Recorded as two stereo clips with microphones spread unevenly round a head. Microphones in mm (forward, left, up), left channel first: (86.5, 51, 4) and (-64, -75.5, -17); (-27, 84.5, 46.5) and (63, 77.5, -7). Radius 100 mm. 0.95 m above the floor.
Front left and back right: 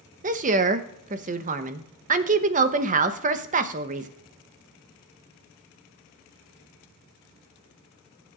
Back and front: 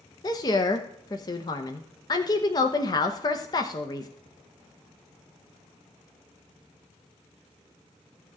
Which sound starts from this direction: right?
A woman speaking, at 0.2 s.